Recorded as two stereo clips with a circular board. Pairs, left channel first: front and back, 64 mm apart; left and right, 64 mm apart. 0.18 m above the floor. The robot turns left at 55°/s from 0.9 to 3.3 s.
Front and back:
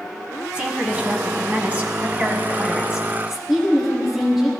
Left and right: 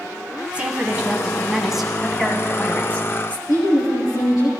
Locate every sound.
0.5 s a woman speaking: 130° right, 1.4 m; by 3.4 s 95° left, 1.4 m
3.5 s a woman speaking: 90° left, 4 m